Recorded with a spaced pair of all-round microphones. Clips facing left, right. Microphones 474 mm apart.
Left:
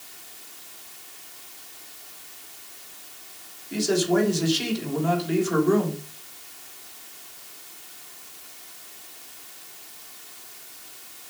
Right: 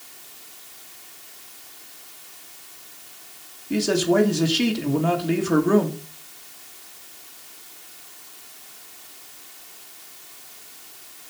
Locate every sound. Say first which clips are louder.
3.7 s a man speaking: right 2 dB; 75° right (ahead or behind), 3 m